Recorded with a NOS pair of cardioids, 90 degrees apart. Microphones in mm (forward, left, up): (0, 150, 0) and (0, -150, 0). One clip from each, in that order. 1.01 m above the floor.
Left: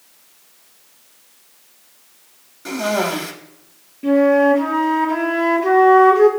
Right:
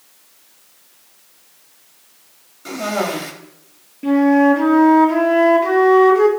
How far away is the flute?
About 1.7 m.